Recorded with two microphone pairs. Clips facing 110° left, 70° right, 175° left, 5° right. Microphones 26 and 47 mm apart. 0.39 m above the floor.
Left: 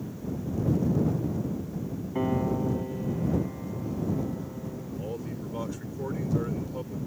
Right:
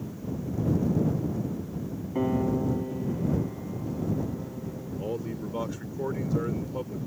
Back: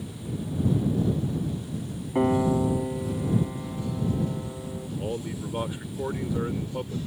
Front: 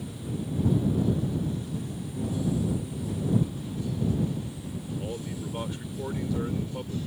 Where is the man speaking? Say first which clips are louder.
Right 5 dB, back 6 dB; 135° right.